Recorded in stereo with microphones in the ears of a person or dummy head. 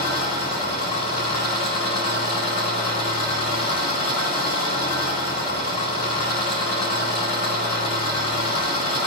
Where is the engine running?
55° left (ahead or behind), 2.5 m.